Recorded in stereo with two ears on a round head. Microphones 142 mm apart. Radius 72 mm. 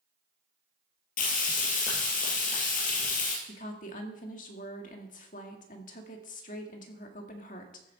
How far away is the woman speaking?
About 1.8 m.